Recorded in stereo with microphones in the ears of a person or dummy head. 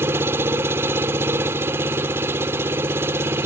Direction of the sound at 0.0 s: 15° right (ahead or behind).